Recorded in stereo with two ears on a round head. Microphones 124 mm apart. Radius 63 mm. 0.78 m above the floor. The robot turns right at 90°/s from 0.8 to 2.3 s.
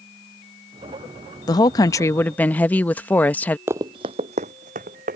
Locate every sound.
1.5 s a woman speaking: 25° left (ahead or behind); by 3.6 s 10° left (ahead or behind)
3.7 s running footsteps: 15° right (ahead or behind); by 5.2 s 60° right (ahead or behind)